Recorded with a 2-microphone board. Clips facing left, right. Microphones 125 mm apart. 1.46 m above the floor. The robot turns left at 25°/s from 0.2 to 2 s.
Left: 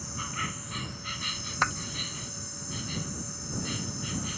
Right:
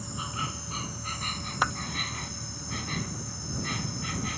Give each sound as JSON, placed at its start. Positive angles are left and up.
{"t": 0.0, "sound": "an insect", "azimuth_deg": -20}
{"t": 1.6, "sound": "a clap", "side_deg": -10}